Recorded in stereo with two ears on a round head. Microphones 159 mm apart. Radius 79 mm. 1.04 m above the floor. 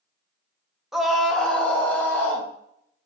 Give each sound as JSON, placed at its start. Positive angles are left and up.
{"t": 0.9, "sound": "a scream", "side_deg": 0, "distance_m": 1.4}